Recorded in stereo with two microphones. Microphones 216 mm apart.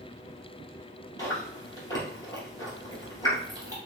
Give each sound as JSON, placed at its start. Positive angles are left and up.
{"t": 1.2, "sound": "chewing", "side_deg": 15, "distance_m": 2.5}